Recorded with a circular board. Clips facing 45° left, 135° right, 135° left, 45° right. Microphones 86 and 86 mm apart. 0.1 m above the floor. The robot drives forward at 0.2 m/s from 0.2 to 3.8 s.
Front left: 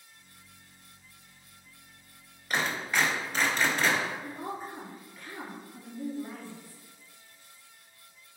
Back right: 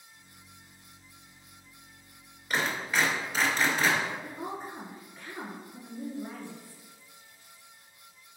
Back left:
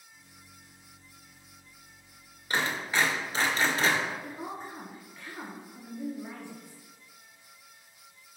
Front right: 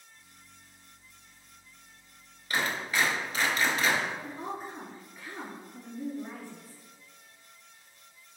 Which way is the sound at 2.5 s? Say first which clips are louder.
Even, back left 1 dB; 135° left.